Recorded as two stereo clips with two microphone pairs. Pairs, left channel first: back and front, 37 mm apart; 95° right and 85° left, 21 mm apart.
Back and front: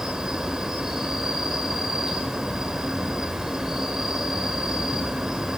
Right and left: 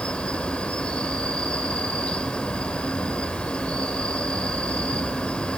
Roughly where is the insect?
Right.